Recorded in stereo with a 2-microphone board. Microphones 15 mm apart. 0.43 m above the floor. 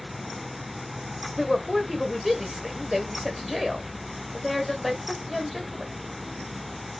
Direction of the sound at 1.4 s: 5° right (ahead or behind).